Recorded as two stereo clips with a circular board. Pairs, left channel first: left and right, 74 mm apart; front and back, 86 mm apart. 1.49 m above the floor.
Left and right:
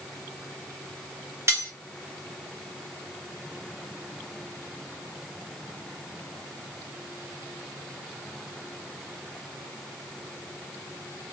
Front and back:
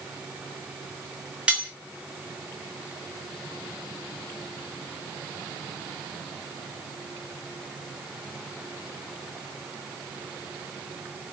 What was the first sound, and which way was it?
Cutlery clinking, 110° right.